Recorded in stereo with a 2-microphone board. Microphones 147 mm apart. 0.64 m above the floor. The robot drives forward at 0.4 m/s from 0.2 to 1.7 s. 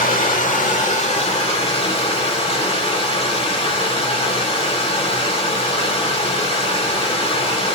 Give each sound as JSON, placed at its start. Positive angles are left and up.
{"t": 0.0, "sound": "running water", "side_deg": 65, "distance_m": 0.9}